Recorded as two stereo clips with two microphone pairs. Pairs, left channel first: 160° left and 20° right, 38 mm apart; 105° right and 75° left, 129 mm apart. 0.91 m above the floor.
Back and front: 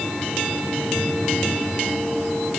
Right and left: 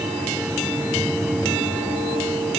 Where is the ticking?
I don't hear ticking.